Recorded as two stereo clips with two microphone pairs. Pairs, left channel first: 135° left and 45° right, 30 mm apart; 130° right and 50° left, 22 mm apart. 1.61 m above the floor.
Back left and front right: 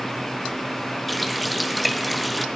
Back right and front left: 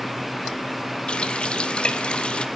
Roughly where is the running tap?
Behind right.